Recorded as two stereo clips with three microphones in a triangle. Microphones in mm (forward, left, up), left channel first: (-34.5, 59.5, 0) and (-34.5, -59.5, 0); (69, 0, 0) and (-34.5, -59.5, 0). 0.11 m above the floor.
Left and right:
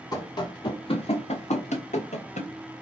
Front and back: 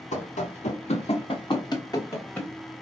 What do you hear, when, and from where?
0.1 s running footsteps: 30° left, 1.3 m; by 2.5 s 105° left, 1.3 m